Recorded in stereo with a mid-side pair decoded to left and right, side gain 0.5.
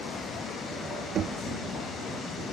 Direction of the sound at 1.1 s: 60° right.